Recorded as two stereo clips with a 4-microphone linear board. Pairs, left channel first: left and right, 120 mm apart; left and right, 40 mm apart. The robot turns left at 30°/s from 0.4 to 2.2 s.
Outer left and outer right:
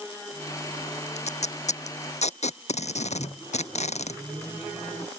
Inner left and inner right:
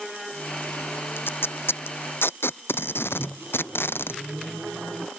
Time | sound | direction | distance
1.2 | tape being pulled | 70° left (ahead or behind) | ?
3.2 | a microwave | 20° left (ahead or behind) | ?